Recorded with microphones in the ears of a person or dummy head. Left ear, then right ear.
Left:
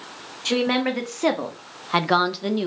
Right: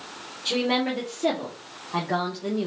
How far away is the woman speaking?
About 1.2 m.